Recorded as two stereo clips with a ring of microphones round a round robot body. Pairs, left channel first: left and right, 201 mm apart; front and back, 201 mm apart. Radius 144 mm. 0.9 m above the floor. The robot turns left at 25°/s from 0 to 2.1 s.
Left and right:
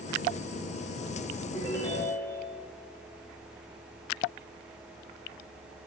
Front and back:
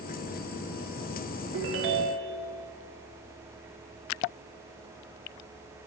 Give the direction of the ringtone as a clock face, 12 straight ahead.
6 o'clock.